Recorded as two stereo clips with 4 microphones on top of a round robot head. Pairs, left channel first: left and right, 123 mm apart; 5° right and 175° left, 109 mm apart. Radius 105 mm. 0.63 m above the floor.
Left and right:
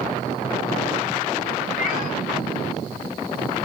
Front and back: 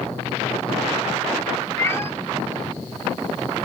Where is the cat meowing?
65° left, 1.3 m.